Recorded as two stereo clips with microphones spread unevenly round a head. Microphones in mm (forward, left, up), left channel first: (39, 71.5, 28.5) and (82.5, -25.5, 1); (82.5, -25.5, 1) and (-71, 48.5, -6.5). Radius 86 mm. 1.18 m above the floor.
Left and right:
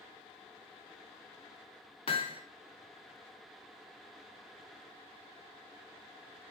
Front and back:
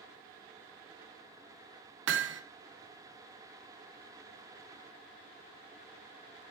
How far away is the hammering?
About 0.6 m.